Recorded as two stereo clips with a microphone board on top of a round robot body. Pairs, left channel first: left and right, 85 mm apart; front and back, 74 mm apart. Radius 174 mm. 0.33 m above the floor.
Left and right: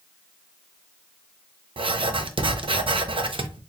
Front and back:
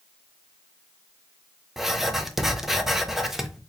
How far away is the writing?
About 0.7 m.